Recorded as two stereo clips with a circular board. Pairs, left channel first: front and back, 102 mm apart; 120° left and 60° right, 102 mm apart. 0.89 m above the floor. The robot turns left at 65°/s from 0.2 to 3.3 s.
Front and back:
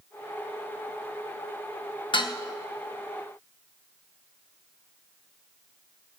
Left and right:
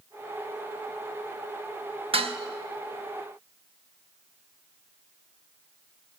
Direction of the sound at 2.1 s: 35° right.